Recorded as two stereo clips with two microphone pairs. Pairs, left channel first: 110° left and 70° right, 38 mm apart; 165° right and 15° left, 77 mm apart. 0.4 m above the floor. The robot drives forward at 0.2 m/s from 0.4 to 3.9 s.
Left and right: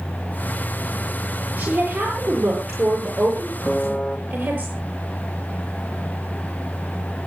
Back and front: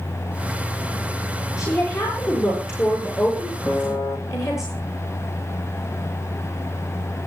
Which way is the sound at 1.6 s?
115° right.